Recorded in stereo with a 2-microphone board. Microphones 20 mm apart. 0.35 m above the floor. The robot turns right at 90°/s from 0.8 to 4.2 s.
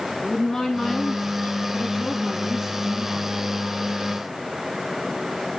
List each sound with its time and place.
0.2 s a woman speaking: 25° left, 3 m; by 3.4 s 105° right, 3 m